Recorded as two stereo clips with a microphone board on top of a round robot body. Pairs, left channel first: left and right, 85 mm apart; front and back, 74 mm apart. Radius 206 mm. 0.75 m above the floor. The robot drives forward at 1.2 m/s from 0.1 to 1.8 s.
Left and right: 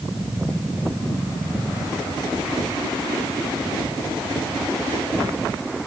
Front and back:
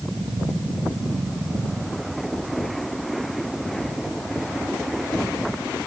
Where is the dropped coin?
I don't hear a dropped coin.